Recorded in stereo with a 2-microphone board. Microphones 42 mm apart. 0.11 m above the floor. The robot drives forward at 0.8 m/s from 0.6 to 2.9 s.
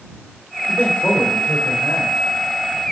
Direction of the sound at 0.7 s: 55° left (ahead or behind).